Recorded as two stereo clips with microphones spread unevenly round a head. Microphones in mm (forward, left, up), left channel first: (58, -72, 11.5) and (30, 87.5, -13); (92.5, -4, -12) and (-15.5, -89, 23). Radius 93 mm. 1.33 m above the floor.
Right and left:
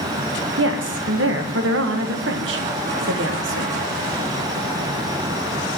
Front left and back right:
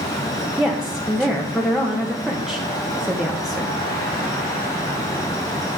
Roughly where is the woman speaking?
Behind left.